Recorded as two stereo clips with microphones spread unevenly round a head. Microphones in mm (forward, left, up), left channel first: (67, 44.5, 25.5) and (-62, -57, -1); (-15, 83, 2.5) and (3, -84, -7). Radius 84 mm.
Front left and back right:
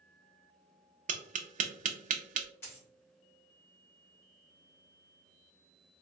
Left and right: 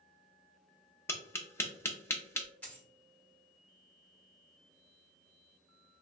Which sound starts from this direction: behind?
Tapping, at 1.1 s.